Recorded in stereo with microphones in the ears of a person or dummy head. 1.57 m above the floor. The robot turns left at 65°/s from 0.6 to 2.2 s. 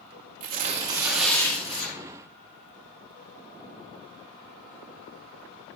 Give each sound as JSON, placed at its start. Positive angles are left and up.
{"t": 0.4, "sound": "tearing paper", "azimuth_deg": -140, "distance_m": 1.1}